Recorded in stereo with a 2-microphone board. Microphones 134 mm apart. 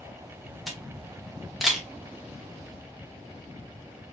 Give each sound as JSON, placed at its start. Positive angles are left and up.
{"t": 0.7, "sound": "a camera shutter", "side_deg": 0, "distance_m": 1.0}